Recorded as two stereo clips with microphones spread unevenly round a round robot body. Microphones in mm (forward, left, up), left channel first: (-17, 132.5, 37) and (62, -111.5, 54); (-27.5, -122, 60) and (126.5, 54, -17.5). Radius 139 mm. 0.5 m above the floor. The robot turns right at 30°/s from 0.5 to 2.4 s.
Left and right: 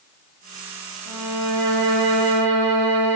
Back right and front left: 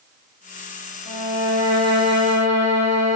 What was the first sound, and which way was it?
A violin, 115° right.